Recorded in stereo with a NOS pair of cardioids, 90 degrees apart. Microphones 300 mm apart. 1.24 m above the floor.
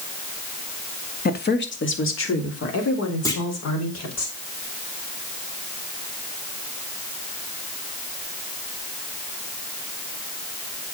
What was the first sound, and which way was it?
A woman speaking, 30° left.